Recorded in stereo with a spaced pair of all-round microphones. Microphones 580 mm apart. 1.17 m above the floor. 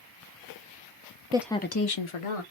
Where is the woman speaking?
10° right (ahead or behind), 0.6 m; by 2.4 s 70° left (ahead or behind), 0.9 m.